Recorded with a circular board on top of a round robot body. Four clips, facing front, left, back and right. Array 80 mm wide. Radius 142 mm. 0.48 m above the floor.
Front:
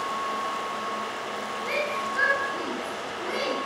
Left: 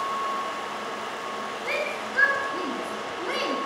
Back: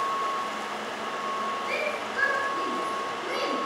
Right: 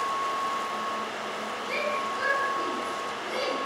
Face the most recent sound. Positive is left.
turn(degrees=90)